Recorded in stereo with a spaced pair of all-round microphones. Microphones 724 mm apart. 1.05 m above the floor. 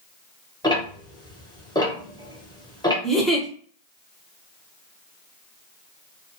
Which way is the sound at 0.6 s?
5° left (ahead or behind).